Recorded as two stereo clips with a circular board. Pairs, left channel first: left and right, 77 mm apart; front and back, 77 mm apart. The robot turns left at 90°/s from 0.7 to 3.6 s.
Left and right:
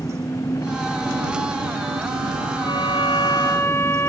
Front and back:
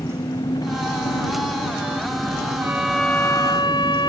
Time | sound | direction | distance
0.0 | an engine running | 35° left | ?
2.6 | a violin | 120° left | ?